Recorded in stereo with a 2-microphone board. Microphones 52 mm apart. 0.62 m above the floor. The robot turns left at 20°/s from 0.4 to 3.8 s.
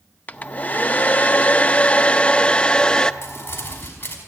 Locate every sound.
0.3 s a hair dryer: 30° left (ahead or behind), 0.6 m; by 3.1 s 15° left (ahead or behind), 0.6 m
3.2 s crumpling: 45° left (ahead or behind), 5 m; by 4.2 s 35° left (ahead or behind), 5 m